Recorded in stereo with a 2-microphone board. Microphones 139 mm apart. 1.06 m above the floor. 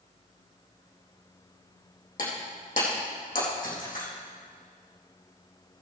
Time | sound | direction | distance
2.2 | breaking glass | 65° left (ahead or behind) | 4 m